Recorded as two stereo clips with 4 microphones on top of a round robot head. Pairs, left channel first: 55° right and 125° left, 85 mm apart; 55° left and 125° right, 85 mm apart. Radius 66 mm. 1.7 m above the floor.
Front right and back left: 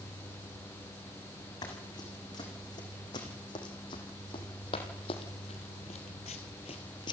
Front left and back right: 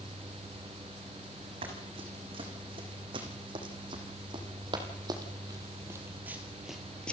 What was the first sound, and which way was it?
Running footsteps, 105° right.